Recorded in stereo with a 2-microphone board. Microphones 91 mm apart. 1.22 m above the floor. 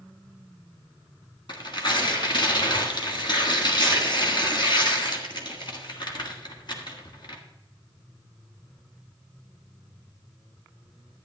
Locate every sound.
1.5 s tearing paper: 55° left (ahead or behind), 1.7 m